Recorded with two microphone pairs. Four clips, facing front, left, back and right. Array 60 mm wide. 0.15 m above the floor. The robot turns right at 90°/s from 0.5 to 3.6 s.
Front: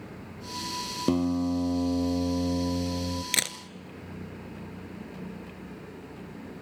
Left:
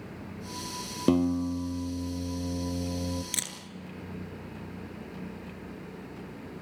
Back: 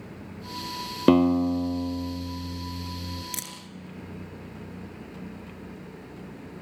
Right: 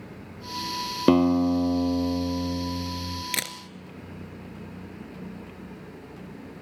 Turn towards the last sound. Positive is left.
turn(degrees=-15)